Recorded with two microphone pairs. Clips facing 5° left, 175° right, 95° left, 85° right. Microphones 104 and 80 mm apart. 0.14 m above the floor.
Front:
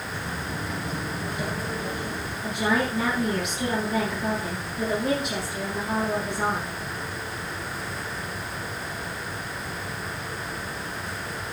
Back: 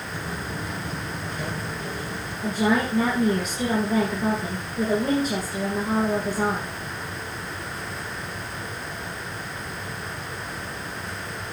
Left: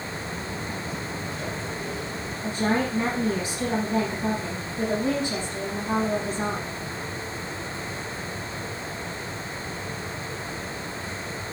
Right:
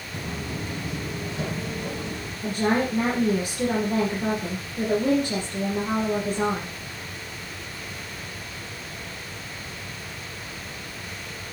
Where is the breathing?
I don't hear breathing.